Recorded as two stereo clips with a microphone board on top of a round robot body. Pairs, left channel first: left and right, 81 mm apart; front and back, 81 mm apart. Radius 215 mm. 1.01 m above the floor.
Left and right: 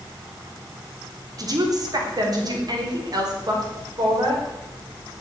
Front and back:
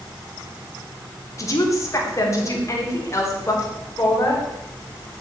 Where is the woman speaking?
50° right, 3.5 m; by 4.4 s 55° right, 5.5 m.